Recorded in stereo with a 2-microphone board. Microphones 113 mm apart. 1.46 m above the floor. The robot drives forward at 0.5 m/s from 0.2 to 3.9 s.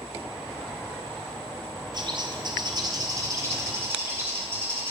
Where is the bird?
40° right (ahead or behind), 0.6 m; by 4.9 s 25° right (ahead or behind), 1.0 m.